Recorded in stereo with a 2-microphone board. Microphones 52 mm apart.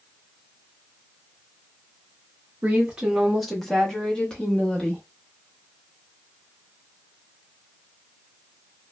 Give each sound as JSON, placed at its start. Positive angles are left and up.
{"t": 2.6, "sound": "a woman speaking", "side_deg": -25, "distance_m": 0.6}